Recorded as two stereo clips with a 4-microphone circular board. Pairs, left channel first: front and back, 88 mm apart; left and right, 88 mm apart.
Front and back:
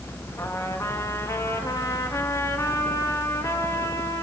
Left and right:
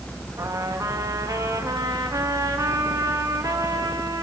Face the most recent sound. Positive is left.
turn(degrees=-50)